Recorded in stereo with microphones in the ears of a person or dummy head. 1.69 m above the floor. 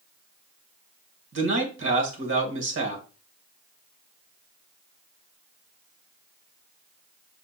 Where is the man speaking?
75° right (ahead or behind), 1.6 m.